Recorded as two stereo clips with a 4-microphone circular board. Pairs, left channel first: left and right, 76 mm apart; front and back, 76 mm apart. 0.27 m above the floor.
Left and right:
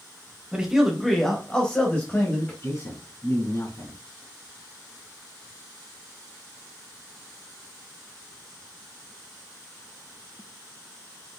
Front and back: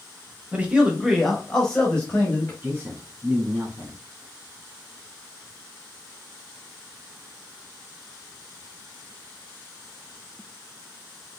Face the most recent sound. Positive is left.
turn(degrees=130)